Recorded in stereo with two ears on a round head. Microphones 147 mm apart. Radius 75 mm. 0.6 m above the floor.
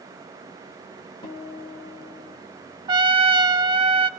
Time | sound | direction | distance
1.2 | a guitar | 25° left (ahead or behind) | 1.5 m
2.9 | a trumpet | 30° right (ahead or behind) | 0.5 m